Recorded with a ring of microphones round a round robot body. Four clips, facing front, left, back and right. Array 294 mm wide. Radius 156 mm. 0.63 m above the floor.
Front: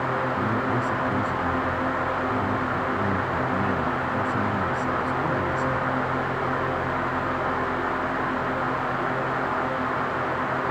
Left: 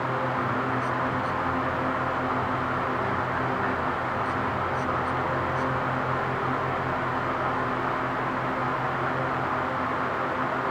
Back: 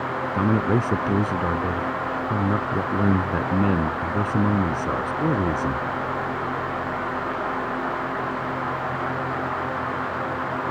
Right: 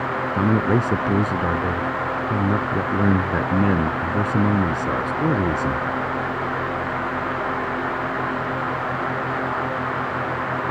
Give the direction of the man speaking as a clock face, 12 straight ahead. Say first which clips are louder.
Right 7 dB, back 3 dB; 4 o'clock.